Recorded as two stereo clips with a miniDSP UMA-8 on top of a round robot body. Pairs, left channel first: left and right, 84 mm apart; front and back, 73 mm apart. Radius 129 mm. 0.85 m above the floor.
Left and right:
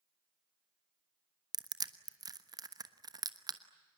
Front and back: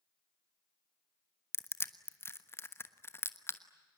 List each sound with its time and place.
1.5 s crushing: 55° right, 1.3 m